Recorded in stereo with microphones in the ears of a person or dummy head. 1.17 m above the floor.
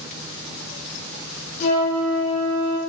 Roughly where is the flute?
Left.